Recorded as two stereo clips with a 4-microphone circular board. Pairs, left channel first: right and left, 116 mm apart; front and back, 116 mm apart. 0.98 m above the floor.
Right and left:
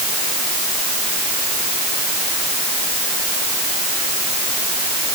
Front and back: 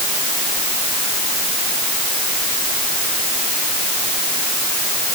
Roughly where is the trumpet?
No trumpet in this recording.